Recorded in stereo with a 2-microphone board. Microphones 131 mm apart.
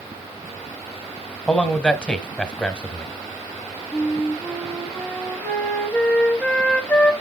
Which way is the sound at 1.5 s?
10° left (ahead or behind).